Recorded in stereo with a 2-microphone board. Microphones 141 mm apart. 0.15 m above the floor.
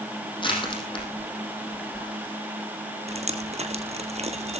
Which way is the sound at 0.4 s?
40° left (ahead or behind).